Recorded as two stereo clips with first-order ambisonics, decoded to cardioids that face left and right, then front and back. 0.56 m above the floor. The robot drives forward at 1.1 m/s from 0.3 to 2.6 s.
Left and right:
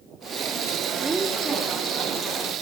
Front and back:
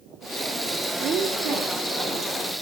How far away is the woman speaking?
About 0.8 m.